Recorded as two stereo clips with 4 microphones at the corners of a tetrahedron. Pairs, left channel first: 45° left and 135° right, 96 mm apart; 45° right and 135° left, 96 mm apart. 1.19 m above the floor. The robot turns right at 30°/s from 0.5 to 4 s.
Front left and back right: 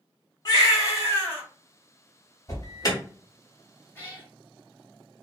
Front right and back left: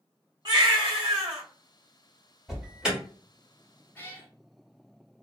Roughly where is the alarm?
Ahead left.